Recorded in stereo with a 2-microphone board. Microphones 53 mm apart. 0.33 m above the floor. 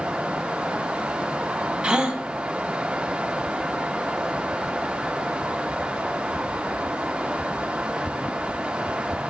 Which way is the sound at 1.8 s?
20° right (ahead or behind).